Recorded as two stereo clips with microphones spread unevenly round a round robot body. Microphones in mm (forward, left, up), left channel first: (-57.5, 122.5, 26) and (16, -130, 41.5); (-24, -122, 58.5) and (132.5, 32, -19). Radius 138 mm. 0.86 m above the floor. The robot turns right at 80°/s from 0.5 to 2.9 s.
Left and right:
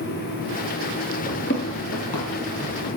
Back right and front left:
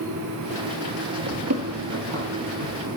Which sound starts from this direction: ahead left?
Running footsteps, at 1.3 s.